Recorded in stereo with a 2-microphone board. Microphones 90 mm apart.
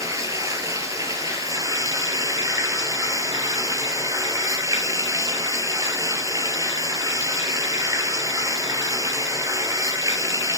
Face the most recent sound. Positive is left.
turn(degrees=-40)  # may be behind; listen again after turning